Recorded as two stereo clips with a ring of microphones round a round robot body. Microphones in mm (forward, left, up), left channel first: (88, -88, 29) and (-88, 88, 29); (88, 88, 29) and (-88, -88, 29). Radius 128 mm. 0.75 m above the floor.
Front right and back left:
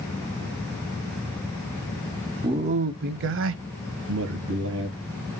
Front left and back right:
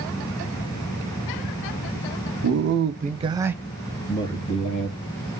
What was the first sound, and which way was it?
A man speaking, 155° right.